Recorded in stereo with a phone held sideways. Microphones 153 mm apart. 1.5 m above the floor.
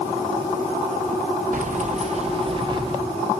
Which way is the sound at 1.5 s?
55° right (ahead or behind).